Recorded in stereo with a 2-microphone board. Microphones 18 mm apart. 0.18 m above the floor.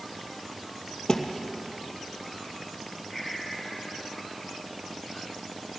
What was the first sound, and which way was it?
A thud, 30° left (ahead or behind).